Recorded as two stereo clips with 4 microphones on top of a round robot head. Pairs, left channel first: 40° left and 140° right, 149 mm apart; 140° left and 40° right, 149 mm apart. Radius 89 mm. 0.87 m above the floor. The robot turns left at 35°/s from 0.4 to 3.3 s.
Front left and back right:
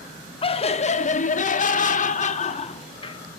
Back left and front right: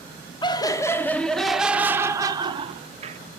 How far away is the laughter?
About 0.9 m.